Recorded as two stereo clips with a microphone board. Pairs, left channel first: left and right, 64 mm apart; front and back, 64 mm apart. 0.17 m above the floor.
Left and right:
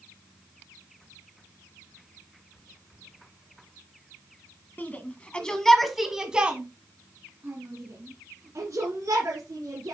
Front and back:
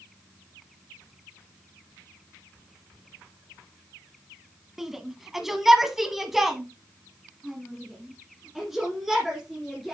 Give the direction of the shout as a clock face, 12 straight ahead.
9 o'clock.